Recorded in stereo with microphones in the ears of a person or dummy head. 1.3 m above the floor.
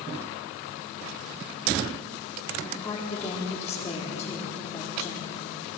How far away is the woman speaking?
About 4 m.